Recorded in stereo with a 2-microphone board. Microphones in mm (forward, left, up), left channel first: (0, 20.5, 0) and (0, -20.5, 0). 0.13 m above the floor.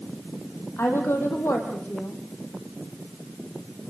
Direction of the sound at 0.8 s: 75° left (ahead or behind).